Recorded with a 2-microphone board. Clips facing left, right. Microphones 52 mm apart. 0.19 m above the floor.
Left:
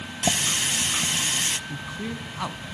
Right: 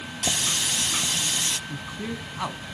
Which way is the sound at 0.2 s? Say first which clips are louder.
Left 3 dB; 30° left (ahead or behind).